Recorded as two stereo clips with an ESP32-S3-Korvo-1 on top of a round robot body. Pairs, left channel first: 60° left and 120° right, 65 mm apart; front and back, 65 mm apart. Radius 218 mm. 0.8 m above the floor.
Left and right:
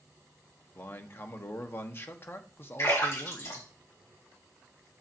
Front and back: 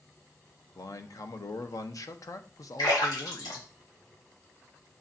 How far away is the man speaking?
About 1.3 m.